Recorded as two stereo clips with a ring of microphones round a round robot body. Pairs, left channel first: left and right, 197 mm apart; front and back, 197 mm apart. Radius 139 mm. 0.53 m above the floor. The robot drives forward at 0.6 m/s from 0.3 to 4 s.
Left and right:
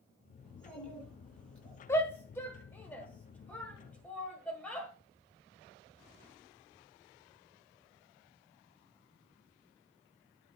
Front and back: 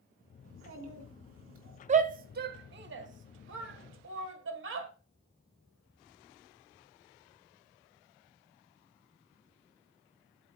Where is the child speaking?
175° left, 2.5 m.